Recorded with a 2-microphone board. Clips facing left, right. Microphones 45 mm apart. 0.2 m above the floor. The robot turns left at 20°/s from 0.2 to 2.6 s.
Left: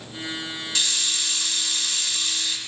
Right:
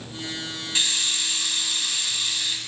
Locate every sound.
0.8 s a hiss: 20° right (ahead or behind), 1.3 m; by 2.6 s 10° right (ahead or behind), 1.3 m